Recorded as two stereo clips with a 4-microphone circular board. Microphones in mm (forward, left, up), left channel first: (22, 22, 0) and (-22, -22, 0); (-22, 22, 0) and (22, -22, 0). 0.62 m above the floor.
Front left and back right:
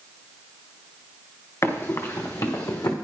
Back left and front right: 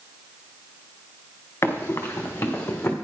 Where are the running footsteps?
85° left, 3.5 m; by 2.9 s 65° left, 2.5 m.